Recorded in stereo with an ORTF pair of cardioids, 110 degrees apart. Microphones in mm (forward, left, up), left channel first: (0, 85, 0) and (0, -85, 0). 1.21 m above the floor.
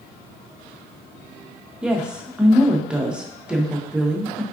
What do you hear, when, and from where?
1.8 s a woman speaking: 5° right, 0.6 m